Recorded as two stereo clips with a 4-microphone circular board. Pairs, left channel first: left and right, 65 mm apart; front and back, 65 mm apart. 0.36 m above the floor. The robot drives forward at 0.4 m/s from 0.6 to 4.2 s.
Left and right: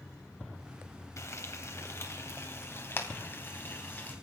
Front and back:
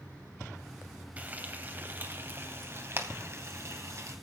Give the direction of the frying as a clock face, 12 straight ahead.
8 o'clock.